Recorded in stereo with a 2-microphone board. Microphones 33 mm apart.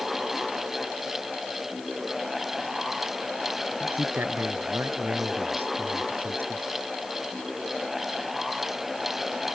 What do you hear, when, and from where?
3.8 s a man speaking: 85° right; by 6.6 s 80° right